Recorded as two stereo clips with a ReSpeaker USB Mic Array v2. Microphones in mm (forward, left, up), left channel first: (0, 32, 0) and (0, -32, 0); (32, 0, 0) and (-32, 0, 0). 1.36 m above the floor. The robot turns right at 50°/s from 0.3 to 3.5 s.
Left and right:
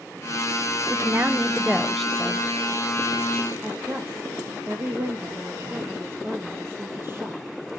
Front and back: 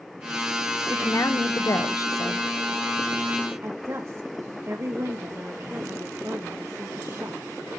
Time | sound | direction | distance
0.9 | a woman speaking | 50° right | 0.9 m
3.6 | a woman speaking | 140° right | 2.0 m